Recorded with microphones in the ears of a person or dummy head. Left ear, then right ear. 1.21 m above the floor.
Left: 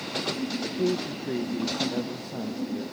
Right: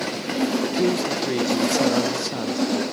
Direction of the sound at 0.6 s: 50° right (ahead or behind).